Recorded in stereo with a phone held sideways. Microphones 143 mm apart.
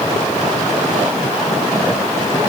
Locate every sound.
Only background noise.